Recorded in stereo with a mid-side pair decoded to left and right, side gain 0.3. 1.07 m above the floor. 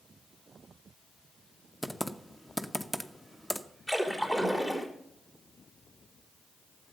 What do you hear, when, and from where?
1.8 s typing on a keyboard: 5° left, 0.8 m
3.9 s a splash: 25° left, 4 m